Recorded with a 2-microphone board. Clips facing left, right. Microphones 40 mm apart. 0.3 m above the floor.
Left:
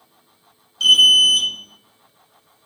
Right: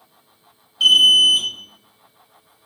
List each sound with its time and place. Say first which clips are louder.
0.8 s an alarm: even; 20° right (ahead or behind), 0.8 m